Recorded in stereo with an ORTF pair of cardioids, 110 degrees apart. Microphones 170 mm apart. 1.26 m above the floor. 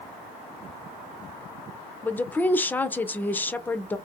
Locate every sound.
2.0 s a woman speaking: 10° left, 0.5 m